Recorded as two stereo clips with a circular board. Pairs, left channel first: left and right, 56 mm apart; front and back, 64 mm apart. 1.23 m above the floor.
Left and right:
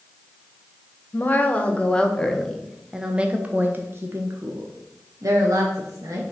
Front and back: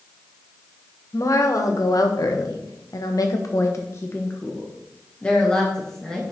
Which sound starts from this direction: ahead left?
A woman speaking, at 1.1 s.